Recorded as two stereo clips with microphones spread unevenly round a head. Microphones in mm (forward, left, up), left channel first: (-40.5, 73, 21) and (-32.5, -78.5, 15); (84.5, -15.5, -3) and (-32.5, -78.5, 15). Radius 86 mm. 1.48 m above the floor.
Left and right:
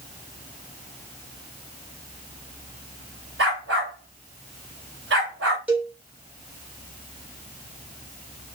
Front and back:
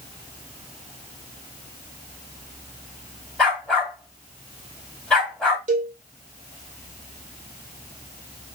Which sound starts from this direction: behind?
A cowbell, at 5.7 s.